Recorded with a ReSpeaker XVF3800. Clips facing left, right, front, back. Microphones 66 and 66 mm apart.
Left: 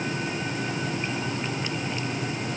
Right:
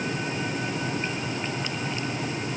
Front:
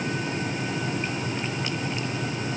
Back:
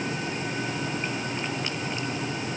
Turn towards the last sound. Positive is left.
No sound to turn to.